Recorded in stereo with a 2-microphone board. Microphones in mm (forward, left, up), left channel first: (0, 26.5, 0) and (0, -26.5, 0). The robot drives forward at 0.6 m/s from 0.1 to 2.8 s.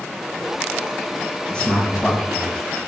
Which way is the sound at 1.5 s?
20° left (ahead or behind).